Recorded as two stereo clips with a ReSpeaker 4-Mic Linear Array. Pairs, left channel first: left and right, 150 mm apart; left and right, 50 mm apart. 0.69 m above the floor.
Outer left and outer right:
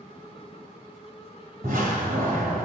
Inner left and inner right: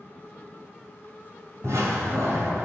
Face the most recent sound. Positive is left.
turn(degrees=-70)  # may be behind; listen again after turning